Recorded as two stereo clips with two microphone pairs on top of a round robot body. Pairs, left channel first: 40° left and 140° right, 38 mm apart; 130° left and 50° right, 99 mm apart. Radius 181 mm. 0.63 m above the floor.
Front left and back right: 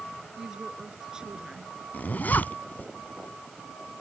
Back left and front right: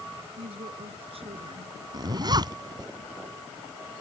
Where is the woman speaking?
70° right.